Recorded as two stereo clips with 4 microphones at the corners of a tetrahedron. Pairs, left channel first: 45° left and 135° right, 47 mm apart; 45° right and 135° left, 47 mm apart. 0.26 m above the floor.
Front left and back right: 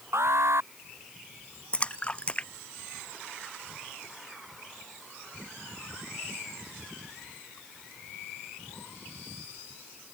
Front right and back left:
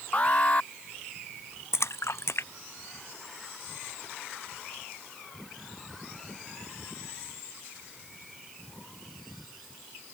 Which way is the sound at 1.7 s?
20° right.